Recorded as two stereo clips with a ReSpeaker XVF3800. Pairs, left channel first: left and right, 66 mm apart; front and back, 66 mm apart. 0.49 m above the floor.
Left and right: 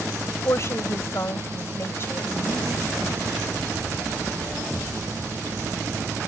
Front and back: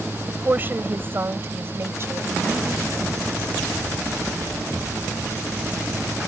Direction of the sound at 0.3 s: 125° left.